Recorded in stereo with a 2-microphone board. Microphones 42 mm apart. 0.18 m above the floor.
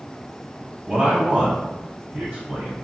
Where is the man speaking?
30° right (ahead or behind), 1.7 m; by 2.8 s 20° right (ahead or behind), 1.3 m.